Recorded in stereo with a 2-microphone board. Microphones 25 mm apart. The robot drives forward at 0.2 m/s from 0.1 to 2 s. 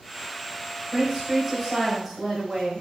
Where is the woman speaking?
15° right (ahead or behind), 1.3 m.